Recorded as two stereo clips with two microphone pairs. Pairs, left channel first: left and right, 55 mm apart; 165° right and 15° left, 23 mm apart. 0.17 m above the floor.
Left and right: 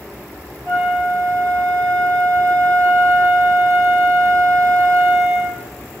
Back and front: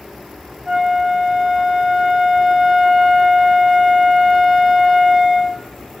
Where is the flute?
65° right, 4 m.